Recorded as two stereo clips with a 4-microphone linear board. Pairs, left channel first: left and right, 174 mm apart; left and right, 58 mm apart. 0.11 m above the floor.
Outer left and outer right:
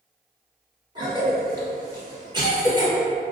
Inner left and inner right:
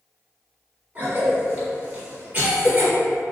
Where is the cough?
25° right (ahead or behind), 1.7 m.